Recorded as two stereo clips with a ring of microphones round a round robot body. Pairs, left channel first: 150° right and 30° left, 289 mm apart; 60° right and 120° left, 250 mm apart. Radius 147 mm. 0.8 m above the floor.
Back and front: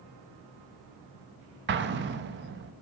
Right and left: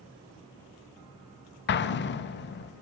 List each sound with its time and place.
1.7 s an explosion: 20° right, 0.6 m